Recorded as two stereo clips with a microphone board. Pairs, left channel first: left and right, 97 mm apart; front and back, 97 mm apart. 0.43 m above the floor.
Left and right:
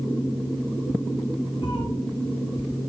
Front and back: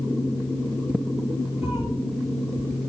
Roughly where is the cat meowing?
Behind left.